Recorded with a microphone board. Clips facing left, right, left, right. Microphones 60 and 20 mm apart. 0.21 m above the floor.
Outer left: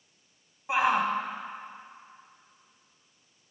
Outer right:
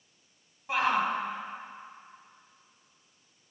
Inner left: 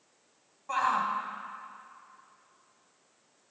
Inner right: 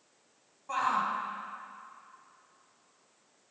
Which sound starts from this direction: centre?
A shout, at 0.7 s.